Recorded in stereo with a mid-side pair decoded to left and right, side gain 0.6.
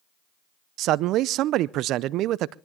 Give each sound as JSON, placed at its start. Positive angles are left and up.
{"t": 0.8, "sound": "a man speaking", "azimuth_deg": -65, "distance_m": 0.5}